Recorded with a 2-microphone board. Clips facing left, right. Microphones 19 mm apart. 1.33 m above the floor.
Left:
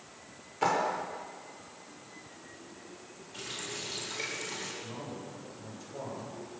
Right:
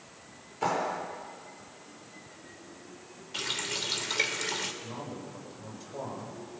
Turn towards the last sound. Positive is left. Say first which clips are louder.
# right 1 dB
turn(degrees=-15)  # may be behind; listen again after turning